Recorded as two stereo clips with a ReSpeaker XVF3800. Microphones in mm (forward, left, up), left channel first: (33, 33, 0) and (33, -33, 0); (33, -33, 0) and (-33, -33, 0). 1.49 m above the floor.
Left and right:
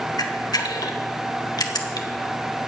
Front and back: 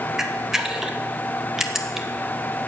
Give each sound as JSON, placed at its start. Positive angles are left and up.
{"t": 0.2, "sound": "a camera shutter", "azimuth_deg": 100, "distance_m": 1.3}